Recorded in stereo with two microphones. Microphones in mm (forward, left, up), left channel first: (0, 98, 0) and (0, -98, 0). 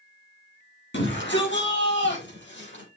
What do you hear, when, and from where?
0.9 s a shout: 80° left, 6.5 m; by 2.8 s 75° left (ahead or behind), 6.5 m